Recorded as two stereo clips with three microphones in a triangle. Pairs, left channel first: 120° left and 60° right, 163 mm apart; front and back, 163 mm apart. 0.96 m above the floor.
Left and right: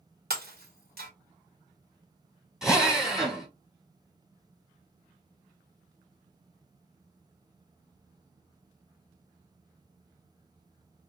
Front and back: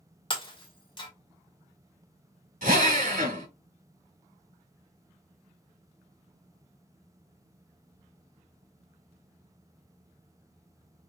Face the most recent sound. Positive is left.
turn(degrees=-145)